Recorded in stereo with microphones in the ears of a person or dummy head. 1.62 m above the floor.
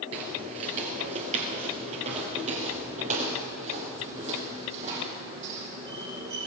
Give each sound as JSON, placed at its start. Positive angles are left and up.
{"t": 0.1, "sound": "footsteps", "side_deg": -30, "distance_m": 1.8}